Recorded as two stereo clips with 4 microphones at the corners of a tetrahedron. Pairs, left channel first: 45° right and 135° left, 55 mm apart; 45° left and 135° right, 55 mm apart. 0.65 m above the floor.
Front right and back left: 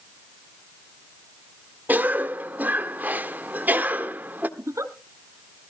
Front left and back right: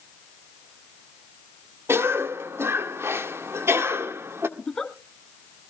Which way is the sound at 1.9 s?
170° right.